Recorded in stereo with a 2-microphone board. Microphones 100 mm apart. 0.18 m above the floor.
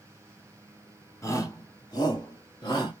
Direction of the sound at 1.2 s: 30° left (ahead or behind).